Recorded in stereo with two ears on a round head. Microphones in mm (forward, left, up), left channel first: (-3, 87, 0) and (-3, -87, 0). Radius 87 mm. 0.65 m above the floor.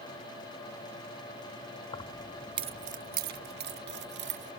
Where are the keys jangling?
25° left (ahead or behind); by 4.5 s 60° right (ahead or behind).